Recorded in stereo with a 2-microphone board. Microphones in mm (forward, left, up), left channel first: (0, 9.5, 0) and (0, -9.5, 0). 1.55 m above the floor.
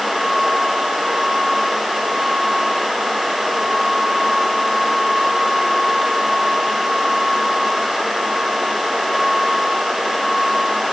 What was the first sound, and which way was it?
Only background noise.